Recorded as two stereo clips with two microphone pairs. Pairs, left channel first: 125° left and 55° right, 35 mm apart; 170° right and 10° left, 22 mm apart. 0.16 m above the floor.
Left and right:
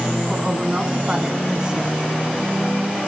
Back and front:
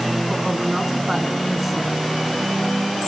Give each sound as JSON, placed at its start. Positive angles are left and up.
{"t": 0.3, "sound": "a woman speaking", "azimuth_deg": -60, "distance_m": 1.4}